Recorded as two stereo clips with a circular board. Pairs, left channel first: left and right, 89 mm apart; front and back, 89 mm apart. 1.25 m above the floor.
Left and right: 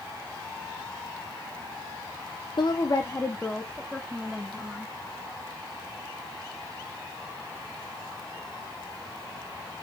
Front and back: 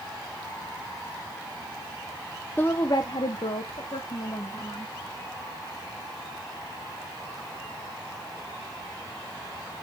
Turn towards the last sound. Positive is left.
turn(degrees=-5)